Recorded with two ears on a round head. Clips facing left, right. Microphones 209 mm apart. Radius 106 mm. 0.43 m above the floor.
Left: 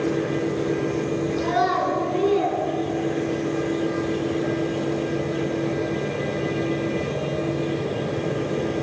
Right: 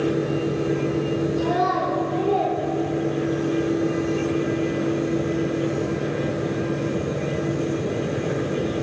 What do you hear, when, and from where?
1.4 s a child speaking: 75° left (ahead or behind), 4 m; by 3.5 s 60° left (ahead or behind), 4 m